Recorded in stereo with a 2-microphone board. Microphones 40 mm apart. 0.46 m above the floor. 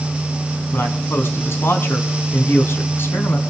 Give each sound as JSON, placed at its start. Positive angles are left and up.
{"t": 0.7, "sound": "a man speaking", "side_deg": 65, "distance_m": 4.0}